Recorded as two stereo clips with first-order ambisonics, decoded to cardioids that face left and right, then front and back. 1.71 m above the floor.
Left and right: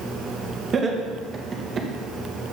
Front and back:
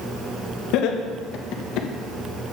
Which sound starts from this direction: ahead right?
Laughter, at 0.7 s.